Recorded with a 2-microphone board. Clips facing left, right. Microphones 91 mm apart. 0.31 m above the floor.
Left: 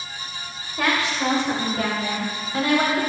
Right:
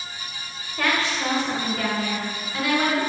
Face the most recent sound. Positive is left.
turn(degrees=35)  # may be behind; listen again after turning